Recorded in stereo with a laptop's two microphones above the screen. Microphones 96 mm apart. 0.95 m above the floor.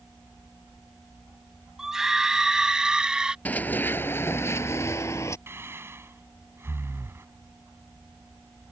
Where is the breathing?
25° right (ahead or behind).